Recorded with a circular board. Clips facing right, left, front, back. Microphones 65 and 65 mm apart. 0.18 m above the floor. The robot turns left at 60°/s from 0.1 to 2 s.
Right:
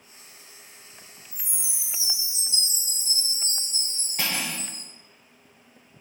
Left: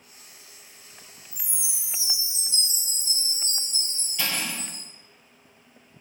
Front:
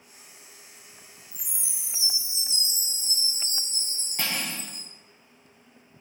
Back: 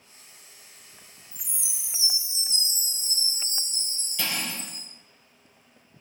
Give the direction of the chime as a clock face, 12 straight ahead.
11 o'clock.